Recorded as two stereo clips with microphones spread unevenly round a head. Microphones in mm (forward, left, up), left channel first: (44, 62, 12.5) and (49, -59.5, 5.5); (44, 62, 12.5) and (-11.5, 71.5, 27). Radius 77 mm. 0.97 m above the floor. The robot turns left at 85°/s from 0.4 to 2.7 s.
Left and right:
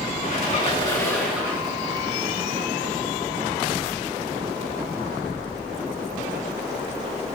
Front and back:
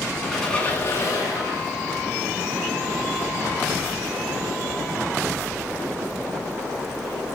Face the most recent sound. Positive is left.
turn(degrees=-120)